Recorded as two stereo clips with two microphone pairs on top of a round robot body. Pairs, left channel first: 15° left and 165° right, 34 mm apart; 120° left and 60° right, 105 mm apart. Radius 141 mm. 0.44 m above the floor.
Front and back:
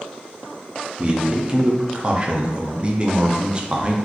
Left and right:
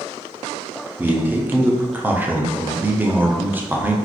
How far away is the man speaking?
About 1.1 m.